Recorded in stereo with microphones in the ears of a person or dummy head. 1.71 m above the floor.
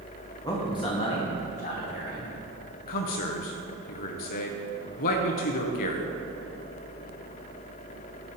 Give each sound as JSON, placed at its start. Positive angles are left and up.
{"t": 0.4, "sound": "a man speaking", "side_deg": 15, "distance_m": 1.6}
{"t": 2.9, "sound": "a man speaking", "side_deg": 50, "distance_m": 0.8}